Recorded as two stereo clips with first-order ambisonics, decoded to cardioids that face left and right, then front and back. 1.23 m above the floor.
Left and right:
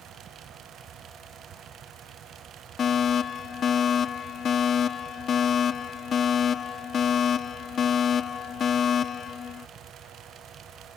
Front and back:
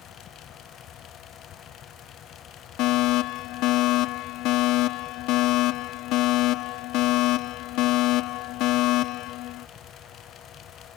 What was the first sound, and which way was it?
A fire alarm, 25° left.